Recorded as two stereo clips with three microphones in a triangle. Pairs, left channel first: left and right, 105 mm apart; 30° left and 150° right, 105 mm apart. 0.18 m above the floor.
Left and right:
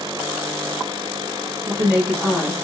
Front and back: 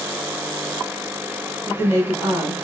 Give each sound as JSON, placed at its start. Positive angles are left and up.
{"t": 1.6, "sound": "a woman speaking", "azimuth_deg": -160, "distance_m": 1.1}